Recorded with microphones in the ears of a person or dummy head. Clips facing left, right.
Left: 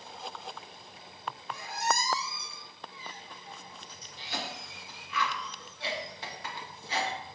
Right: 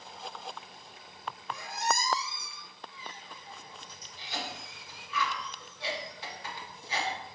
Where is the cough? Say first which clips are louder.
Left 1 dB; 55° left (ahead or behind), 0.8 m.